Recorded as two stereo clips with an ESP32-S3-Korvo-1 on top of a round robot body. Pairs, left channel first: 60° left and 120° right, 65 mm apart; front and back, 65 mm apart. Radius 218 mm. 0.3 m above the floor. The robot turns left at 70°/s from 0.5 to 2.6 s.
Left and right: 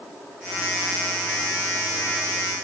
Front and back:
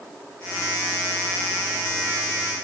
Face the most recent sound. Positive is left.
No sound to turn to.